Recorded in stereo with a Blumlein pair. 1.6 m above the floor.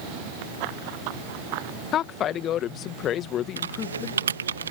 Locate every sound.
0.6 s running footsteps: 45° right
1.9 s a woman speaking: 30° left
3.6 s typing on a keyboard: 70° right